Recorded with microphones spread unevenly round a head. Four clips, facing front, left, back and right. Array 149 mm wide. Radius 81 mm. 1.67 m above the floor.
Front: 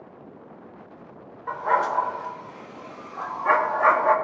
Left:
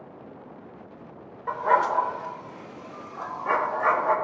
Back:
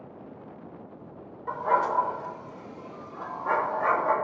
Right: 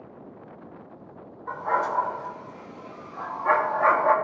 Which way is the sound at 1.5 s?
115° left.